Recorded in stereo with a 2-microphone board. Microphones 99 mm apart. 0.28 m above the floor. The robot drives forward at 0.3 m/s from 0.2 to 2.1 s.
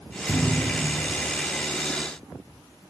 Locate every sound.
0.3 s a thud: 20° left (ahead or behind), 3 m; by 1.2 s 25° left (ahead or behind), 3 m